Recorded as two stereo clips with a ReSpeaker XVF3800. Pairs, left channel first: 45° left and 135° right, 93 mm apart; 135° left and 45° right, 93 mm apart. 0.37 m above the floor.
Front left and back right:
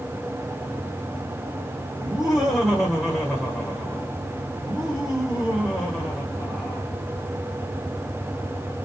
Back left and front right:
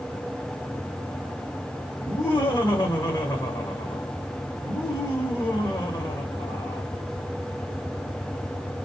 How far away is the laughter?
About 1.6 m.